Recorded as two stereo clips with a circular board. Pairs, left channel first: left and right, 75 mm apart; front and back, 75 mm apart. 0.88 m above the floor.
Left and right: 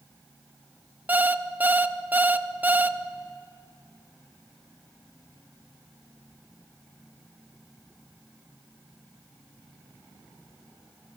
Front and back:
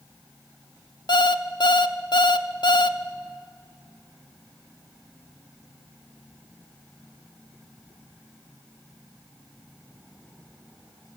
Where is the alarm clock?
20° right, 0.6 m.